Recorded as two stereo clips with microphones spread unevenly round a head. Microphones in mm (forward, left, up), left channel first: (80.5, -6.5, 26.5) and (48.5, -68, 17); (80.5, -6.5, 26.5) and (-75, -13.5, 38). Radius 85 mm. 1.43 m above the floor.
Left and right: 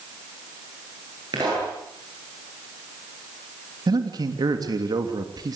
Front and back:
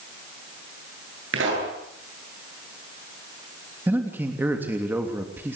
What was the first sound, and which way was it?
A pop, straight behind.